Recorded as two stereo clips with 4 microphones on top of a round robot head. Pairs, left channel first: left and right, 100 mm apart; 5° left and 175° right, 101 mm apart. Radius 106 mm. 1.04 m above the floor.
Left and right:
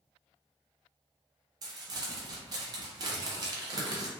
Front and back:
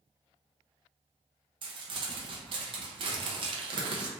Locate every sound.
1.6 s crumpling: 140° right, 0.5 m